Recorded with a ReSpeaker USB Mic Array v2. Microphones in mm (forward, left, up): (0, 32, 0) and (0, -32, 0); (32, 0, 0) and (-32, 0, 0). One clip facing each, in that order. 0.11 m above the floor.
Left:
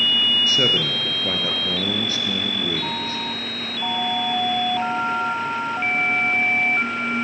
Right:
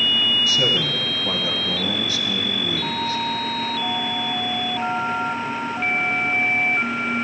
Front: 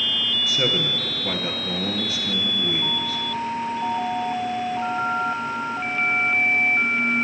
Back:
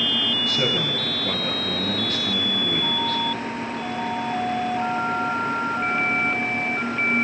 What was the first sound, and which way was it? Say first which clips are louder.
A man speaking: even, front 2 dB; 80° left.